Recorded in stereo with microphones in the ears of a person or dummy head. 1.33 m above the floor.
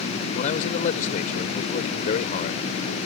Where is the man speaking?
50° left (ahead or behind).